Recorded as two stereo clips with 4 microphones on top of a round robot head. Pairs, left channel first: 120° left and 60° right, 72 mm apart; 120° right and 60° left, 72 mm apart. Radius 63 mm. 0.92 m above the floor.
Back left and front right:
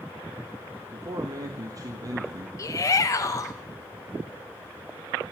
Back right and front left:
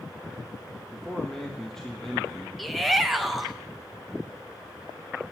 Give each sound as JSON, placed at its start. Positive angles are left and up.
{"t": 0.9, "sound": "a man speaking", "azimuth_deg": -35, "distance_m": 1.5}
{"t": 2.6, "sound": "a shout", "azimuth_deg": 150, "distance_m": 0.7}